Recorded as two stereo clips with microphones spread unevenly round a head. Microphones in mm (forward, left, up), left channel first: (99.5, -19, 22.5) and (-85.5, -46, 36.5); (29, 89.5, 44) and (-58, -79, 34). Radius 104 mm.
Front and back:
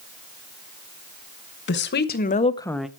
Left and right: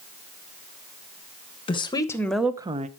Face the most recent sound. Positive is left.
turn(degrees=-85)